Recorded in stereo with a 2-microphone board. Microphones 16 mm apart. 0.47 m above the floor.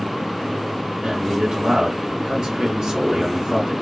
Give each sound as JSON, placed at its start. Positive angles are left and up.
{"t": 1.0, "sound": "a man speaking", "side_deg": -50, "distance_m": 1.7}